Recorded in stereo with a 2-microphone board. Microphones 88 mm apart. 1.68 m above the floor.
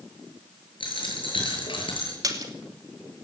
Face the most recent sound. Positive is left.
turn(degrees=-45)  # may be behind; listen again after turning